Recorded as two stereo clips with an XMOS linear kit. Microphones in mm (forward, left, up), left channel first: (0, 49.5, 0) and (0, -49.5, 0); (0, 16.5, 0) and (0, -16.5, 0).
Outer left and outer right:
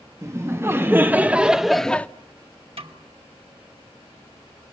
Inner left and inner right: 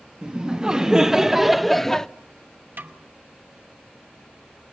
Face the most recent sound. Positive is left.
turn(degrees=-75)  # may be behind; listen again after turning